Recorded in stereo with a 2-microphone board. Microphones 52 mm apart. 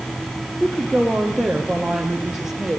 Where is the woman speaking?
10° left (ahead or behind), 3.5 m; by 2.8 s 10° right (ahead or behind), 3.5 m.